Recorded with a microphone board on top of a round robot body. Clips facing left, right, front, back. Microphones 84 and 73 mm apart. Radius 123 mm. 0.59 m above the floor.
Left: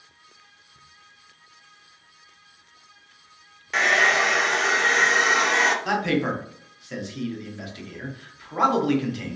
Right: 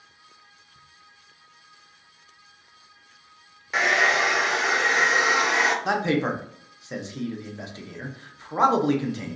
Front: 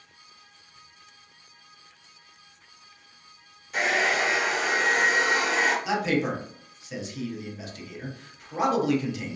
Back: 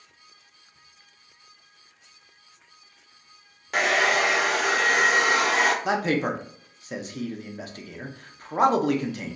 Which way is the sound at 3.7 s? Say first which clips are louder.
Left 1 dB, back 3 dB; 175° right.